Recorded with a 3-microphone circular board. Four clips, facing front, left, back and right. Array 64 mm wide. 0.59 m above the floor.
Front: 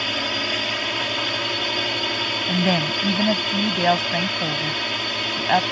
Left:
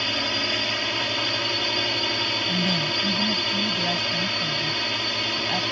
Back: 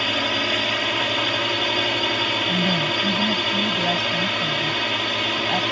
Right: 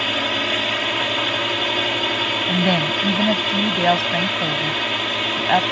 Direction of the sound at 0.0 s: 115° right.